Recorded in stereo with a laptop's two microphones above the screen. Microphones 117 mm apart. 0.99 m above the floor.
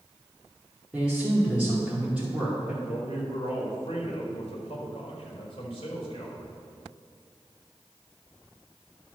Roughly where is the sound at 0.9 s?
Centre.